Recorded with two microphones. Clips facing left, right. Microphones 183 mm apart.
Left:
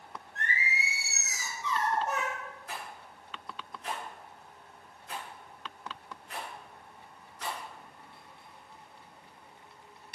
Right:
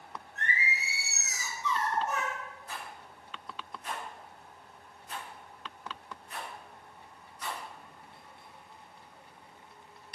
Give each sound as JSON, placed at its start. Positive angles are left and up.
{"t": 0.3, "sound": "singing", "side_deg": 85, "distance_m": 2.0}
{"t": 2.7, "sound": "a rattle", "side_deg": 90, "distance_m": 1.5}